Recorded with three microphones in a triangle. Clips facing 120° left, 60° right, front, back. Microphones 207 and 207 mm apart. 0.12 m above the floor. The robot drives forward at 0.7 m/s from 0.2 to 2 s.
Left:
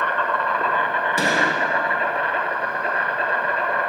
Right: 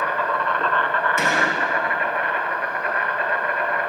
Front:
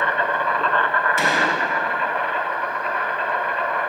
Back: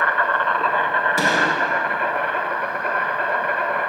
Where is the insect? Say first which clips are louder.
Even, even; 15° left, 0.7 m; by 3.9 s 175° left, 1.2 m.